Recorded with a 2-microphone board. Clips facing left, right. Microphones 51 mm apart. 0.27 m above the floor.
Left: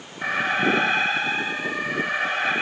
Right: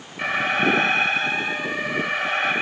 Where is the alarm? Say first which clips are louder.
Right 1 dB; 70° right (ahead or behind), 9.5 m.